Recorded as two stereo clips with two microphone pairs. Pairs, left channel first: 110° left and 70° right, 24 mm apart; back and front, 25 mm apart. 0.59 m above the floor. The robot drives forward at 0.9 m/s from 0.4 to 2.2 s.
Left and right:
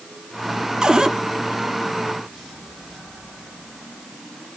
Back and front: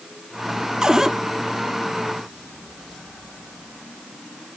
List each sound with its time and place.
0.8 s a cupboard door: 45° right, 1.3 m; by 1.1 s 65° right, 1.2 m